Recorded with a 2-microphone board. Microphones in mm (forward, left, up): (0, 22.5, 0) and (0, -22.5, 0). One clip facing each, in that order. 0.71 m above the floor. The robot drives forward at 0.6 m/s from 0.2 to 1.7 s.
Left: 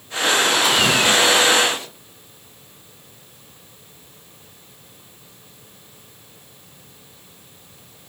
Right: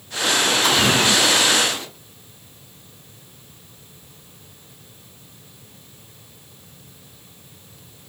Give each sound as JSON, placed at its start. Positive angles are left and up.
{"t": 0.6, "sound": "a splash", "side_deg": 5, "distance_m": 2.5}